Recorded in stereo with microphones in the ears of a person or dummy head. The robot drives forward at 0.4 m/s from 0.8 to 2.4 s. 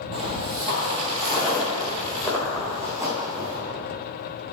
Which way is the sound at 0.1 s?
30° right (ahead or behind).